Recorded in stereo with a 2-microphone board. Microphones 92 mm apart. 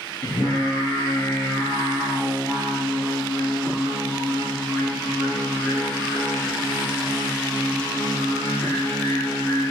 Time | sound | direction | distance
0.2 | singing | 40° left (ahead or behind) | 3.5 m